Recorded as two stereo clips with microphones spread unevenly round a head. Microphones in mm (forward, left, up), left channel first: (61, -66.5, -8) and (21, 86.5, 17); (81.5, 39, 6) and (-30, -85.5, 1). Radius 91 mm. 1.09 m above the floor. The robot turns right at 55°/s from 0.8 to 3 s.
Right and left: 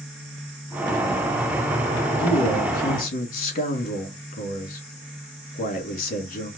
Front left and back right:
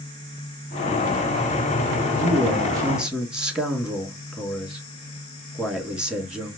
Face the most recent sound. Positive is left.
turn(degrees=-45)